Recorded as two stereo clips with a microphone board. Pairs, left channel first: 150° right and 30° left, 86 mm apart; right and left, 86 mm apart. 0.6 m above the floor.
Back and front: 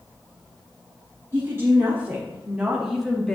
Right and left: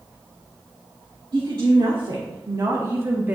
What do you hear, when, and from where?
1.3 s a woman speaking: 85° left, 1.8 m; by 3.4 s 140° left, 1.0 m